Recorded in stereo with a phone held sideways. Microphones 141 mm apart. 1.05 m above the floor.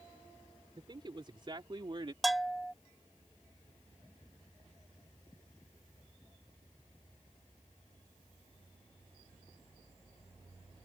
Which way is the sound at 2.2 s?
Centre (ahead or behind).